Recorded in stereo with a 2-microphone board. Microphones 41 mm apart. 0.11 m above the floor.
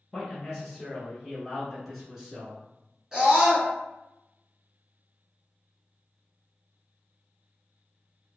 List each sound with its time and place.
0.1 s a man speaking: centre (ahead or behind), 1.1 m; by 2.6 s 5° right (ahead or behind), 1.3 m
3.1 s a scream: 15° right (ahead or behind), 1.2 m